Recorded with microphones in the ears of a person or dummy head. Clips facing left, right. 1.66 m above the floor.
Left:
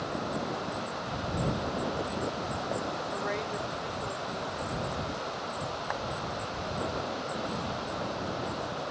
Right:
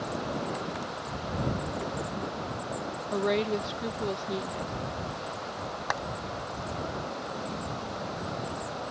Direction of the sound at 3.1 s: 55° right (ahead or behind).